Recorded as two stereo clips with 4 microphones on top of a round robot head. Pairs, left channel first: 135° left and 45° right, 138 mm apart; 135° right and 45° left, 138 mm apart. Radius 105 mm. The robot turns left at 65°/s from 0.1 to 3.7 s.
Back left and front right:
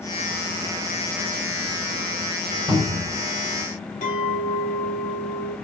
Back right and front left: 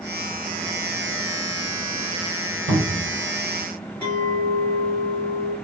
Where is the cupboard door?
25° left, 1.6 m; by 3.1 s 5° right, 1.6 m.